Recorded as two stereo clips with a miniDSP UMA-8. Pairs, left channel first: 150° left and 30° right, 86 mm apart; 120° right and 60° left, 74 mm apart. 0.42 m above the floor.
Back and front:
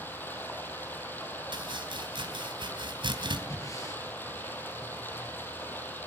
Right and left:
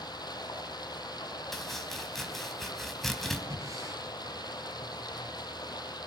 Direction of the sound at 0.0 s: 140° right.